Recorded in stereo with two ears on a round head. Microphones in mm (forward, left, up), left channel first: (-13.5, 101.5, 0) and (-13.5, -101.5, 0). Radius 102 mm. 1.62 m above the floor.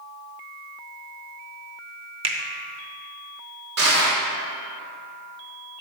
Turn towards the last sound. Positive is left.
turn(degrees=-50)  # may be behind; listen again after turning